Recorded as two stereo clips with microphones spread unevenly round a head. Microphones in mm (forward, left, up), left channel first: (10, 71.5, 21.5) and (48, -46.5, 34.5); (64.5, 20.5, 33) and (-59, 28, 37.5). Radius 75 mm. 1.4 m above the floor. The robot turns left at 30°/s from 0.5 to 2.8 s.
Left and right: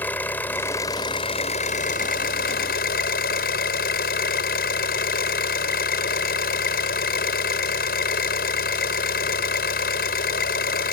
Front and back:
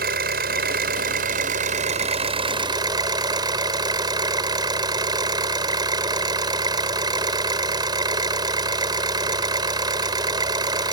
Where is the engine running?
170° right; by 10.9 s 120° left.